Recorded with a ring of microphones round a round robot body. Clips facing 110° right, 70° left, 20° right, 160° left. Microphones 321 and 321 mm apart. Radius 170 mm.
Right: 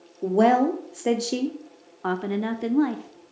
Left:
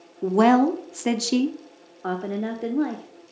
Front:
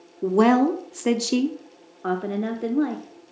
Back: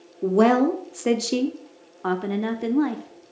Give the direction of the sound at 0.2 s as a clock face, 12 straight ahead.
10 o'clock.